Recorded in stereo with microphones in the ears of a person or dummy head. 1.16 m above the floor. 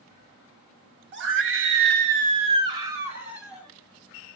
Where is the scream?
50° right (ahead or behind), 0.8 m; by 3.7 s 5° right (ahead or behind), 1.3 m.